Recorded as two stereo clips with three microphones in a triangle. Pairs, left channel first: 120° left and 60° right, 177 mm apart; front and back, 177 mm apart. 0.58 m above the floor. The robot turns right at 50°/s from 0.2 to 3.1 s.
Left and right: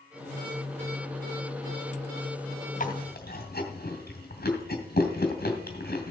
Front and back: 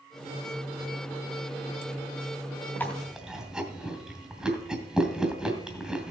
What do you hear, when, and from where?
2.8 s chewing: 80° left, 2.5 m; by 6.1 s 95° left, 2.5 m